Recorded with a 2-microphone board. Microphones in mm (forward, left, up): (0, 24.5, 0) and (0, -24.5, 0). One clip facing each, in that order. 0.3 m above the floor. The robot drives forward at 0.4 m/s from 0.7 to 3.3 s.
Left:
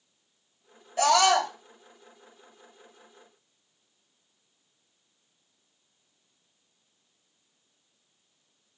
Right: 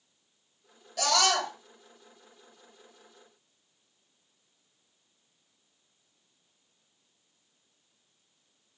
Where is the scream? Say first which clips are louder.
Left 6 dB; 25° left (ahead or behind), 2.0 m.